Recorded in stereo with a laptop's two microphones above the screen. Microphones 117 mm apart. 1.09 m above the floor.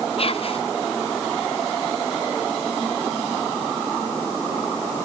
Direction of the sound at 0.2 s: 55° left (ahead or behind).